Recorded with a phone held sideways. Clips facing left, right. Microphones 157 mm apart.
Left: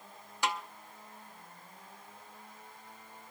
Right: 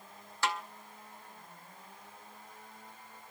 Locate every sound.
0.4 s a snare drum: 15° left (ahead or behind), 0.7 m